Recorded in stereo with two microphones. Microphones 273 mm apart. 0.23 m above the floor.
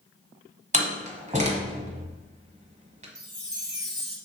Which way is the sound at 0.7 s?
25° right (ahead or behind).